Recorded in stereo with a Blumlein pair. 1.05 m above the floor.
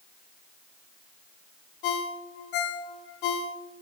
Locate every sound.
1.8 s a ringtone: 45° left, 0.6 m